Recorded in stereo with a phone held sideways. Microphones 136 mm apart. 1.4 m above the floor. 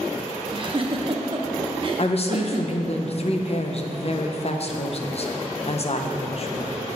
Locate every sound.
0.5 s a giggle: 40° right (ahead or behind), 0.7 m
2.0 s a woman speaking: 50° left (ahead or behind), 0.7 m